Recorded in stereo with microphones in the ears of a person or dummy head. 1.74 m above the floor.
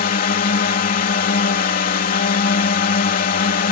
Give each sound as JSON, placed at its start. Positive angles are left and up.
{"t": 0.0, "sound": "a drone", "side_deg": 40}